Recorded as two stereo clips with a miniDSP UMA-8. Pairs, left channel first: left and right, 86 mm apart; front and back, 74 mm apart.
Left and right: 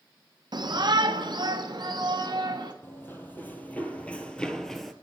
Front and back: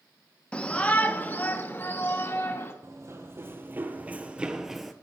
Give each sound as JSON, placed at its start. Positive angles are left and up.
{"t": 0.5, "sound": "a shout", "azimuth_deg": -75, "distance_m": 1.1}
{"t": 2.8, "sound": "running footsteps", "azimuth_deg": 145, "distance_m": 1.6}